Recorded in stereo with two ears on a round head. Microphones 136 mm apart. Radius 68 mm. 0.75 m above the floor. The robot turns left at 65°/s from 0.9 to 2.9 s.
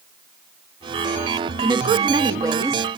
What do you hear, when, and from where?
1.6 s a woman speaking: 65° right, 0.8 m; by 2.9 s 150° right, 0.8 m